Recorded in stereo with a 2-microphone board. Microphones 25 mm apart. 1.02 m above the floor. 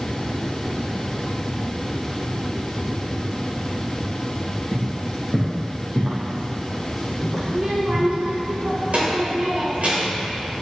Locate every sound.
4.7 s footsteps: 35° right (ahead or behind), 2 m; by 8.1 s 15° right (ahead or behind), 4.5 m
7.5 s a child speaking: 60° right (ahead or behind), 3 m